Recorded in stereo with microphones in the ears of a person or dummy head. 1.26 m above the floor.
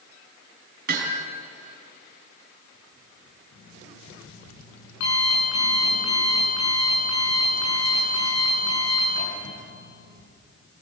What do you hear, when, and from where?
0.9 s hammering: 60° right (ahead or behind), 4.5 m
3.5 s an alarm clock: 70° left (ahead or behind), 9.5 m